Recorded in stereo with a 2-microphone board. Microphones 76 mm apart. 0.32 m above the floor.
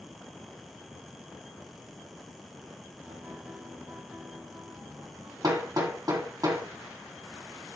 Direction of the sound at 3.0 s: 25° right (ahead or behind).